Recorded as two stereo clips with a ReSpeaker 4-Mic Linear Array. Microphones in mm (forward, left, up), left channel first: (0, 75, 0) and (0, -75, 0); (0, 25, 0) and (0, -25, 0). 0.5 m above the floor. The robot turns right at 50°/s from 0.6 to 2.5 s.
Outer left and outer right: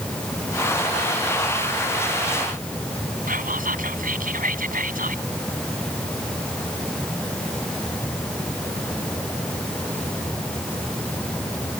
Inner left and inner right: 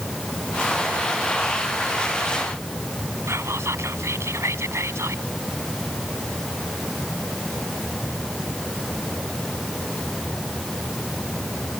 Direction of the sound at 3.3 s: 70° right (ahead or behind).